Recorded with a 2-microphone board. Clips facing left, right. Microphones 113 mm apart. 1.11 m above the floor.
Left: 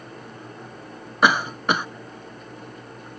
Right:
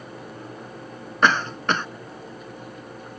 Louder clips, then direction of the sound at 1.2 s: Left 1 dB; 10° left (ahead or behind).